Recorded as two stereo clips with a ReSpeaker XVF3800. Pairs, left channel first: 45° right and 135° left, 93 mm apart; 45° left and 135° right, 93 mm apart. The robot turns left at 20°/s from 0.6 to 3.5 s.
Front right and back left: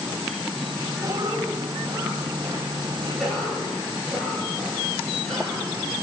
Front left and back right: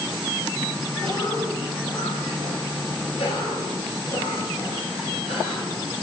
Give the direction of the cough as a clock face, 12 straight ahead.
9 o'clock.